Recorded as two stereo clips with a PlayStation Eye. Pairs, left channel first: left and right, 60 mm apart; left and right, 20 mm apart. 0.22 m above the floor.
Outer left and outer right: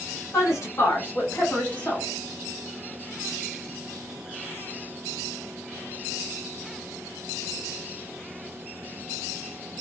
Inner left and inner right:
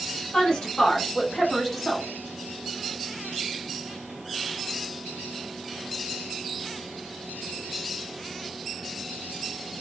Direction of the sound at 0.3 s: 55° left (ahead or behind).